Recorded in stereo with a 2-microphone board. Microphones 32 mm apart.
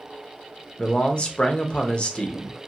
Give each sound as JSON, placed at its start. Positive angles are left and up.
{"t": 0.8, "sound": "a man speaking", "side_deg": 35, "distance_m": 0.6}